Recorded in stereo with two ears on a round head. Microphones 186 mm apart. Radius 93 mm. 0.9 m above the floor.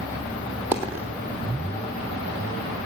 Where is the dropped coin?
10° right (ahead or behind), 2 m.